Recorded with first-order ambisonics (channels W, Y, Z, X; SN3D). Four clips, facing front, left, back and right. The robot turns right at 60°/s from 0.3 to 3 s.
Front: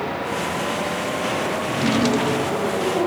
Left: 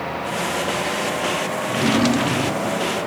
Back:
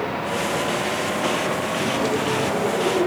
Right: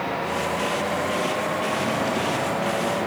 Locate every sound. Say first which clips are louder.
1.7 s a drawer: left 5 dB, front 2 dB; 40° left, 1.3 m; by 2.8 s 110° left, 1.3 m